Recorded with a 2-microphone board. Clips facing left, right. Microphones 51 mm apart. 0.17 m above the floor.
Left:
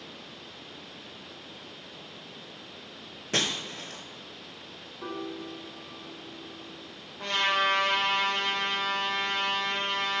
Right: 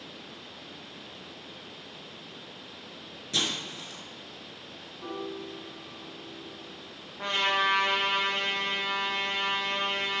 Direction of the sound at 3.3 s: 55° left (ahead or behind).